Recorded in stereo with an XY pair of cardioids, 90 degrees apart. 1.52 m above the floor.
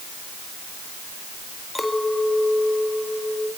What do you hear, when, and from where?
1.8 s a clink: 15° left, 4.5 m